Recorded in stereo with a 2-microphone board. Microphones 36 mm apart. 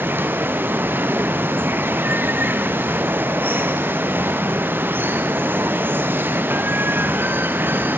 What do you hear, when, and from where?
0.0 s running water: 80° right, 1.0 m